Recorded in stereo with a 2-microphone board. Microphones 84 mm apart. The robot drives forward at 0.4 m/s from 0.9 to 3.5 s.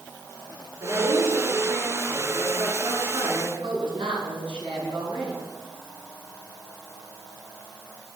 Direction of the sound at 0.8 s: 80° right.